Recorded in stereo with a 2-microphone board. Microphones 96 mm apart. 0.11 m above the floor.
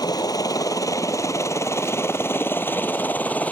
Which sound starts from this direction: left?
A helicopter, at 0.0 s.